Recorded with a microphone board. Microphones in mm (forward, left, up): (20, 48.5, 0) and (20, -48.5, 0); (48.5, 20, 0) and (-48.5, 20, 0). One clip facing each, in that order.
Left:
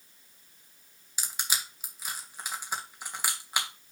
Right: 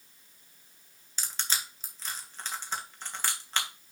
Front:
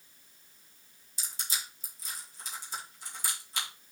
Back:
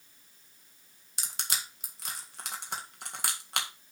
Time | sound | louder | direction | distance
1.2 | crushing | even, back 2 dB | 170° left | 1.5 m